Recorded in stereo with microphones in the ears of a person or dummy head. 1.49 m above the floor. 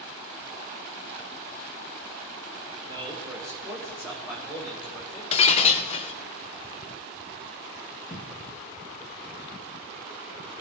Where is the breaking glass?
35° left (ahead or behind), 0.8 m.